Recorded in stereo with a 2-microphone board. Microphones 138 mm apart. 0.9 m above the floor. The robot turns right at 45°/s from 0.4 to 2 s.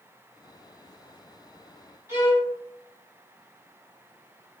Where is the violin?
20° right (ahead or behind), 1.9 m.